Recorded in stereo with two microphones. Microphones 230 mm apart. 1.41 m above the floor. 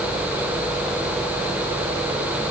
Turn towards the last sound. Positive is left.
No sound to turn to.